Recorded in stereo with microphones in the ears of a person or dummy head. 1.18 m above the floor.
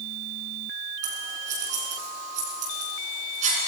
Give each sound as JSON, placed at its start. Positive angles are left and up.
{"t": 1.0, "sound": "scissors", "side_deg": -45, "distance_m": 6.0}